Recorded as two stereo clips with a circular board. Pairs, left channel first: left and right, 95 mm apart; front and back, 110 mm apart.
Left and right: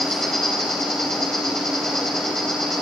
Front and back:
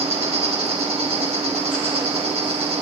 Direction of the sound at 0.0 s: Straight behind.